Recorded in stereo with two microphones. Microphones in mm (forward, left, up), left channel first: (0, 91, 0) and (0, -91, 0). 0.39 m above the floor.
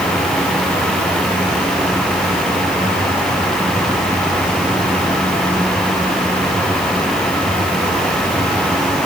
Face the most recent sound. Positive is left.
No sound to turn to.